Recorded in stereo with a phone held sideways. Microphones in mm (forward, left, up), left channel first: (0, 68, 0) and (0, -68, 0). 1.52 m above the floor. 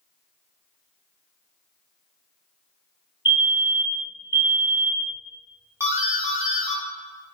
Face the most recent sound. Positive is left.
turn(degrees=-20)  # may be behind; listen again after turning